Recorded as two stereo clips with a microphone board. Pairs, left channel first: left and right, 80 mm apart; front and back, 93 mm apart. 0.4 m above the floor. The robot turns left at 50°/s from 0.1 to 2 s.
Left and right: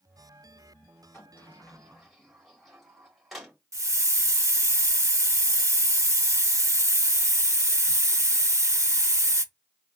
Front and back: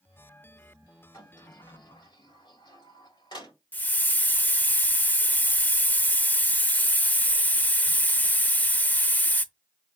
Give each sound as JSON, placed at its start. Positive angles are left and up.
{"t": 1.1, "sound": "a sliding door", "azimuth_deg": 40, "distance_m": 2.0}
{"t": 3.7, "sound": "a hiss", "azimuth_deg": -60, "distance_m": 0.5}